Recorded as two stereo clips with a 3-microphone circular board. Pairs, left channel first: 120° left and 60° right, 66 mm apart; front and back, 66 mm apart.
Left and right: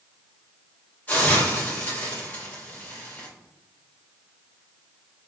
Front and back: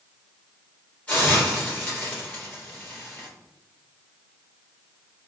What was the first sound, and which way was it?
A hiss, 65° left.